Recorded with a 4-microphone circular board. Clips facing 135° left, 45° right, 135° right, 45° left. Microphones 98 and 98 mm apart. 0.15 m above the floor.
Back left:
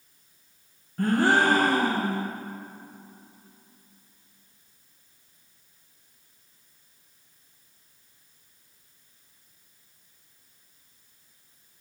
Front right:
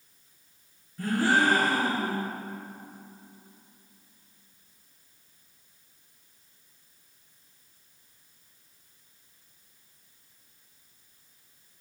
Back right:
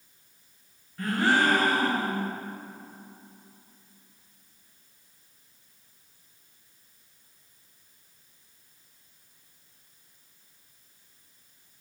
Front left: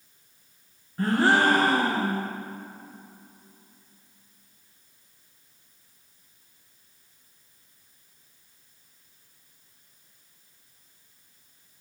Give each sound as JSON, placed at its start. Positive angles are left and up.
{"t": 1.0, "sound": "a gasp", "azimuth_deg": 100, "distance_m": 1.8}